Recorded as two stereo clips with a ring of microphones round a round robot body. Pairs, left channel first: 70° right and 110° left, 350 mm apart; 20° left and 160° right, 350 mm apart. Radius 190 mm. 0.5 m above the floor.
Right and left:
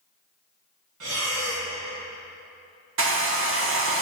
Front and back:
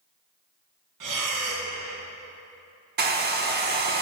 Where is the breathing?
165° left, 1.1 m.